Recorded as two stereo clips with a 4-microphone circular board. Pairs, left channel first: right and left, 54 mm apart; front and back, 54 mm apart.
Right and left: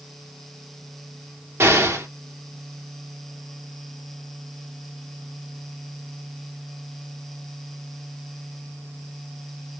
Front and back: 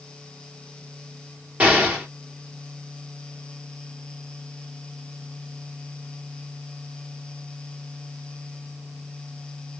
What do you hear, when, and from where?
1.6 s an explosion: 120° left, 1.6 m